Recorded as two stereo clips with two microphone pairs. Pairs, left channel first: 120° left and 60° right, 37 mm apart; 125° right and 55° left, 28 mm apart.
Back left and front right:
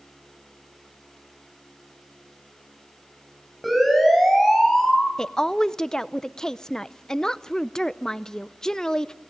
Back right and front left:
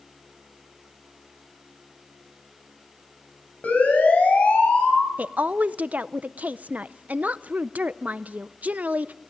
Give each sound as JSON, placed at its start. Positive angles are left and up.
{"t": 3.6, "sound": "a siren", "azimuth_deg": -150, "distance_m": 9.0}
{"t": 5.2, "sound": "a woman speaking", "azimuth_deg": 50, "distance_m": 0.6}